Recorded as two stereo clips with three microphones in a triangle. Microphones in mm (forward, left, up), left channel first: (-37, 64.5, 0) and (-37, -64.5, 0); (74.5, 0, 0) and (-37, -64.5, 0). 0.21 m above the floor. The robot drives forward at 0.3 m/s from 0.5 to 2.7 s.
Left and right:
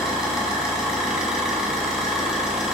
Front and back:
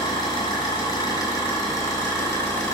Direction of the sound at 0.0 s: 5° right.